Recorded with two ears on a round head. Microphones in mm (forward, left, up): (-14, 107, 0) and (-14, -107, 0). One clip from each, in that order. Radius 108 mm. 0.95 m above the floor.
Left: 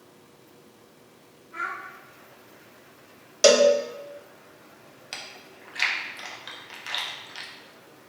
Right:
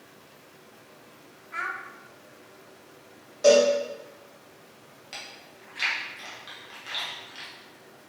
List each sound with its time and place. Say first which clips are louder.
1.5 s a child speaking: even; 60° right (ahead or behind), 0.8 m
3.4 s a cowbell: left 1 dB; 85° left, 0.5 m
5.1 s chewing: left 2 dB; 20° left (ahead or behind), 0.6 m